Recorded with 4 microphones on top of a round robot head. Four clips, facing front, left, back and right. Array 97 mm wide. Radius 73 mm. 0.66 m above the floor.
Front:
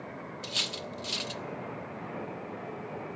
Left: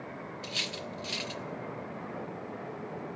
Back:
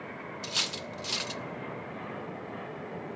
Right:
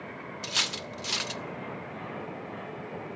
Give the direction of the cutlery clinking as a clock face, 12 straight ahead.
3 o'clock.